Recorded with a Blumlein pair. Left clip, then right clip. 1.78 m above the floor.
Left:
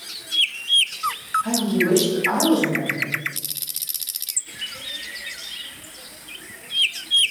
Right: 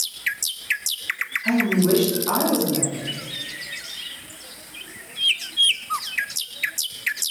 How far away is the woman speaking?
About 1.9 m.